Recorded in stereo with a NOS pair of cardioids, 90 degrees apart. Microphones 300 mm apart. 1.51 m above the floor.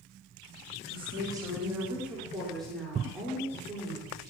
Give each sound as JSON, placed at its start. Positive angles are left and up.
{"t": 0.9, "sound": "a woman speaking", "azimuth_deg": -15, "distance_m": 3.0}